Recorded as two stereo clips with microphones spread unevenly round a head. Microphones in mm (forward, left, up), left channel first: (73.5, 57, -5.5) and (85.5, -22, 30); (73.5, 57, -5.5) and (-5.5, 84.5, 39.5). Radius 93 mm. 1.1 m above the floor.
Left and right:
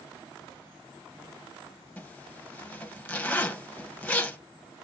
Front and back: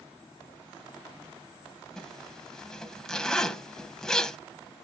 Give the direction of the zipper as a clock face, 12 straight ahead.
11 o'clock.